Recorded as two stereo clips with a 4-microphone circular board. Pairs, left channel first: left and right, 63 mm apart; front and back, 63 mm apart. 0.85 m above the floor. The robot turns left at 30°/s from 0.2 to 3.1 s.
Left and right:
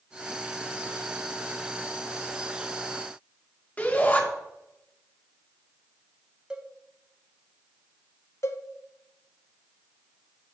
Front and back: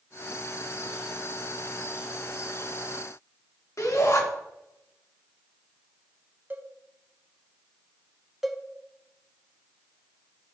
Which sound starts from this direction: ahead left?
A shout, at 3.8 s.